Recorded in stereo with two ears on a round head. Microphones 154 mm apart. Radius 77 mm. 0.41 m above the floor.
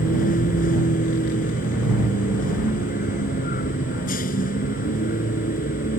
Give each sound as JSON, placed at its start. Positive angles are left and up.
{"t": 0.0, "sound": "a vehicle", "side_deg": 50}